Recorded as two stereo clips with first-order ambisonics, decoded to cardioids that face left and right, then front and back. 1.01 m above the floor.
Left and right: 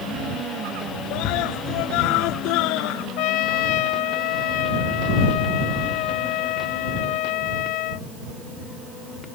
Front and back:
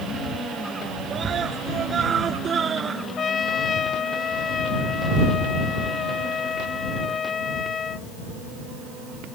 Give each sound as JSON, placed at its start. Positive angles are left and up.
{"t": 1.1, "sound": "a scream", "azimuth_deg": 115}
{"t": 3.2, "sound": "a trumpet", "azimuth_deg": 65}